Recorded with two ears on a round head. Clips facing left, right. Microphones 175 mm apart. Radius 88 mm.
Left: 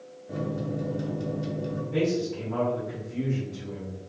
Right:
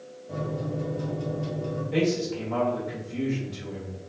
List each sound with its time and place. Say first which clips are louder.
0.3 s a microwave: left 1 dB; 20° left (ahead or behind), 0.8 m
1.9 s a man speaking: right 1 dB; 75° right (ahead or behind), 1.1 m